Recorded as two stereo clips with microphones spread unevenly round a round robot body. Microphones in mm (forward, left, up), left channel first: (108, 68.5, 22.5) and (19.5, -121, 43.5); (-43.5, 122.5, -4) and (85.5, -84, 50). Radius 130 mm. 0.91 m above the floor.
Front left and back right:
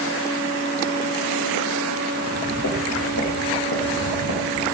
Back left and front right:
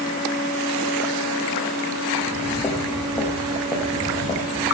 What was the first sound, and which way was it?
Footsteps, 40° left.